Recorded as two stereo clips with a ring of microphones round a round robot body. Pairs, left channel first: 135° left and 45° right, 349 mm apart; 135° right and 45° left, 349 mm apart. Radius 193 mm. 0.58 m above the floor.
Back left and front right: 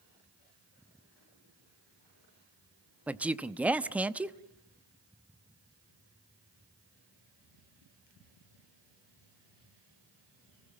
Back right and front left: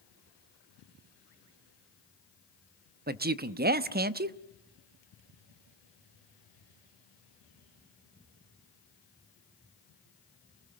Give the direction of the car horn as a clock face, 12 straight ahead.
I don't hear a car horn.